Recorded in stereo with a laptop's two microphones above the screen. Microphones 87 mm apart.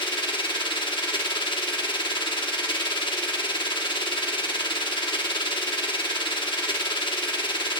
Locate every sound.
0.0 s a machine running: 75° left (ahead or behind), 1.3 m